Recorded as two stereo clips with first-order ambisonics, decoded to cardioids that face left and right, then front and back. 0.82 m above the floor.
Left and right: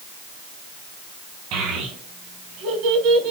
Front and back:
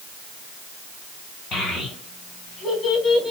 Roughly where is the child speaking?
Ahead right.